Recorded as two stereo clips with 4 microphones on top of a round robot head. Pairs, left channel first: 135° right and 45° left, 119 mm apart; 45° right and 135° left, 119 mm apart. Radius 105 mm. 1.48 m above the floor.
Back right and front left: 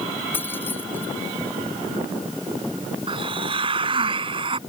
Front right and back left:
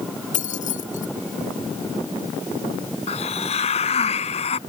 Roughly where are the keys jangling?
Ahead right.